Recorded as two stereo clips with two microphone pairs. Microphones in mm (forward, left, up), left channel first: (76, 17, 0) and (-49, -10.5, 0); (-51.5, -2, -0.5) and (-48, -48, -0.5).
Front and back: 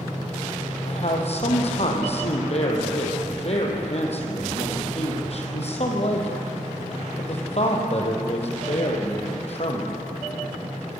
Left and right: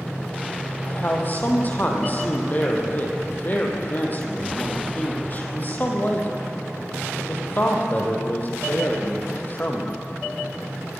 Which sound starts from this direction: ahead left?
A man speaking, at 0.8 s.